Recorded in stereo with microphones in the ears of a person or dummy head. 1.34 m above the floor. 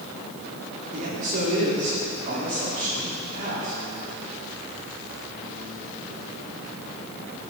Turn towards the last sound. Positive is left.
turn(degrees=-50)  # may be behind; listen again after turning